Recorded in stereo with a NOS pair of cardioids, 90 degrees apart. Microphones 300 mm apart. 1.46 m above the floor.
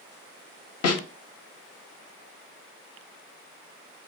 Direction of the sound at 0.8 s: 60° left.